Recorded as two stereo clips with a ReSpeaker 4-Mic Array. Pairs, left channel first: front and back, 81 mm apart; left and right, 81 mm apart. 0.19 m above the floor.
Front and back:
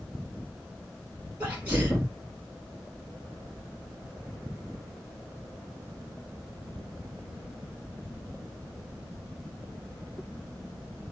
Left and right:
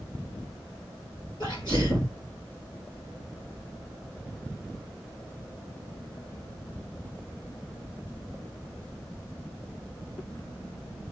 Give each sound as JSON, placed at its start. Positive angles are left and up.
{"t": 1.4, "sound": "a sneeze", "azimuth_deg": 105, "distance_m": 4.0}